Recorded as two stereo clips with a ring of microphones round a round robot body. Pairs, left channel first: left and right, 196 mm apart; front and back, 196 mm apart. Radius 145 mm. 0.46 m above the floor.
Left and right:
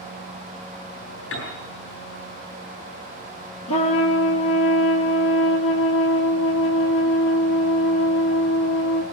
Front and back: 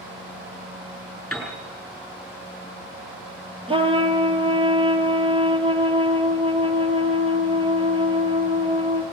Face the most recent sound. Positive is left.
turn(degrees=115)